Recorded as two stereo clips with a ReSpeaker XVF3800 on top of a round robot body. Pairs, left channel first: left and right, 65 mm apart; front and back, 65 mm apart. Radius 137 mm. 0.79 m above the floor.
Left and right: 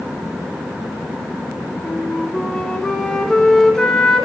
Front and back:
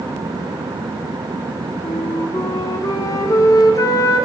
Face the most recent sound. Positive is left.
turn(degrees=10)